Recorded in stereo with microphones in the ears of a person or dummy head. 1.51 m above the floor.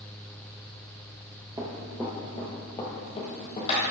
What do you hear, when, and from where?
1.6 s running footsteps: 20° right (ahead or behind), 1.6 m; by 3.8 s 30° left (ahead or behind), 2.5 m